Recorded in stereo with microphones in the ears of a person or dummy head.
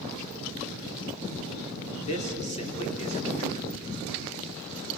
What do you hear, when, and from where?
2.1 s a man speaking: 35° left (ahead or behind), 3.5 m